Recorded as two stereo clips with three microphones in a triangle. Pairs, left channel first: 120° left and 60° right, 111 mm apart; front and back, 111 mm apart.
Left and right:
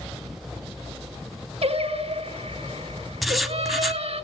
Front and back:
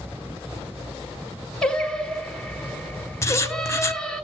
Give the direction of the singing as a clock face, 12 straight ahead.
3 o'clock.